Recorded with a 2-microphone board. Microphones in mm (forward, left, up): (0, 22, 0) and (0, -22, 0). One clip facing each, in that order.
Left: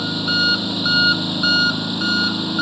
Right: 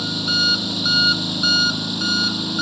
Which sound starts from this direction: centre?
An engine running, at 0.0 s.